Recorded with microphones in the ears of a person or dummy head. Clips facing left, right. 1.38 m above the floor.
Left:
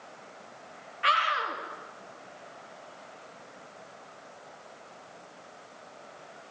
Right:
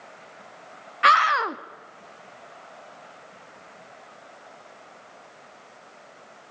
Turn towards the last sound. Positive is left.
turn(degrees=-70)  # may be behind; listen again after turning